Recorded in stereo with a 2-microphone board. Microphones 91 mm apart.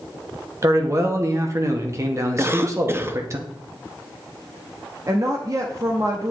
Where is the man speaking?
35° right (ahead or behind), 1.0 m.